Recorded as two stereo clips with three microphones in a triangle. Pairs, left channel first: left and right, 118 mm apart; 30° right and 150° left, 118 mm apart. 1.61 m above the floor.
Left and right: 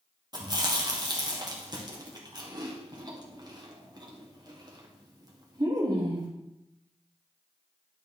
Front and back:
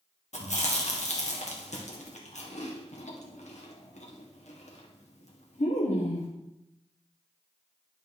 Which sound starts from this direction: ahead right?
Chewing, at 0.3 s.